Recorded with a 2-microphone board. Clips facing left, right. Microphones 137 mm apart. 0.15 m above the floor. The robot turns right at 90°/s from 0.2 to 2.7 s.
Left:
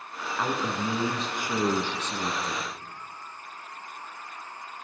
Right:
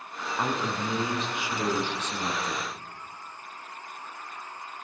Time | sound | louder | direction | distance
0.4 | a man speaking | left 1 dB | 20° right | 1.6 m